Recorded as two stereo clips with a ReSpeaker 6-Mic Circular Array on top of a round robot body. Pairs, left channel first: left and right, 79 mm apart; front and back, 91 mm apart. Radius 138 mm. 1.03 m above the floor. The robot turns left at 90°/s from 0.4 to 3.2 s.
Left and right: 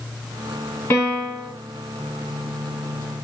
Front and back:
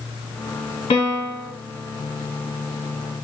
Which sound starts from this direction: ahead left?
A piano, at 0.9 s.